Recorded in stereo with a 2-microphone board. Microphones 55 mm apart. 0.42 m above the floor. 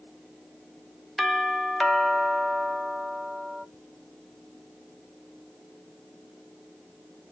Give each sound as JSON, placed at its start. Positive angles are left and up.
{"t": 1.2, "sound": "a doorbell", "side_deg": 5, "distance_m": 1.6}